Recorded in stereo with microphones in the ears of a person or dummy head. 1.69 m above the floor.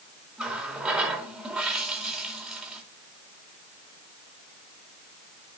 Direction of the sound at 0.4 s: 5° right (ahead or behind).